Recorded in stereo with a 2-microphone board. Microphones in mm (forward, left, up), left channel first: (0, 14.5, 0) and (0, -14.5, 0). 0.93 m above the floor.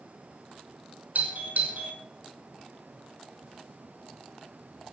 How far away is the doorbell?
About 5 m.